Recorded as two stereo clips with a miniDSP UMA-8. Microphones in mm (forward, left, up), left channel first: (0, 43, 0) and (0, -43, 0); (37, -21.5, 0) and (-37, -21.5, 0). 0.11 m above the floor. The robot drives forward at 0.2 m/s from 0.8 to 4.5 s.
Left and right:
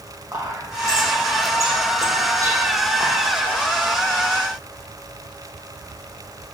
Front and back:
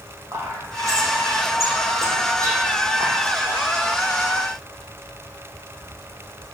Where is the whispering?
140° right, 4.5 m.